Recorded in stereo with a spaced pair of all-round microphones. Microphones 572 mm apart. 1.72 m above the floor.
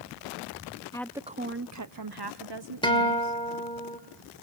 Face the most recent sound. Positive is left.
turn(degrees=10)  # may be behind; listen again after turning